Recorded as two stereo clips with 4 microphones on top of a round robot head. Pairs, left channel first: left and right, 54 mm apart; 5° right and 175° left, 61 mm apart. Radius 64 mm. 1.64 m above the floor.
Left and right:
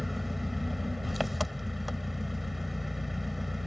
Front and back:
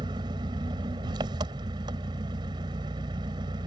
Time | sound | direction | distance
0.0 | an engine running | 175° right | ?